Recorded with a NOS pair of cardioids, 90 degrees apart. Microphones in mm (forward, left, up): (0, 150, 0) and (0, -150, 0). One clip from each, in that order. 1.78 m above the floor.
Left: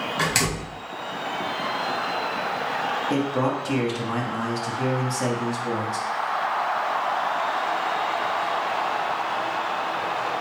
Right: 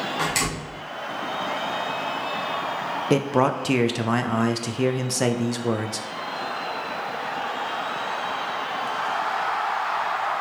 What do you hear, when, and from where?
0.2 s a door slam: 25° left, 1.8 m
3.1 s a man speaking: 40° right, 0.6 m